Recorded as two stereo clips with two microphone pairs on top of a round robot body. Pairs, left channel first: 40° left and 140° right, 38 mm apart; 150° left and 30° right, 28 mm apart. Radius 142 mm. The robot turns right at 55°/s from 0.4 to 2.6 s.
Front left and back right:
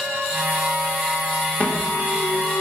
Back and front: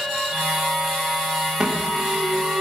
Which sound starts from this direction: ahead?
An alarm, at 1.6 s.